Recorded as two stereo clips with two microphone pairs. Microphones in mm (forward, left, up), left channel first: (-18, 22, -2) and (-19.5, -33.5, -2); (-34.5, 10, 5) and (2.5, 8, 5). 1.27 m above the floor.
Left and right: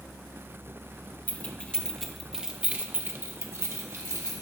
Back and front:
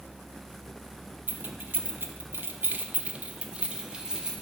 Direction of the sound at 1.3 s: 30° left.